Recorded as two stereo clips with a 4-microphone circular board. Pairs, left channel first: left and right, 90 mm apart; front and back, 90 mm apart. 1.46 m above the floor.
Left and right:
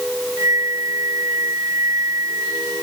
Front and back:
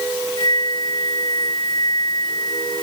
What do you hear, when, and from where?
0.4 s a flute: 35° right